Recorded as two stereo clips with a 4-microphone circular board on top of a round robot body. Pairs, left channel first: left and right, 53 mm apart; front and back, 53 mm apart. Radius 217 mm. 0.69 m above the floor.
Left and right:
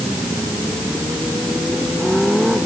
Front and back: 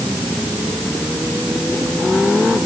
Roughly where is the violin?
I don't hear a violin.